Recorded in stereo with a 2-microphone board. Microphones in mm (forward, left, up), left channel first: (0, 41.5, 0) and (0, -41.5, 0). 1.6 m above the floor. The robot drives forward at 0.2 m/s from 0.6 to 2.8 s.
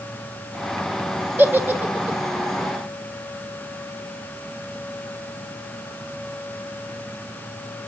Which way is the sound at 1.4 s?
25° right (ahead or behind).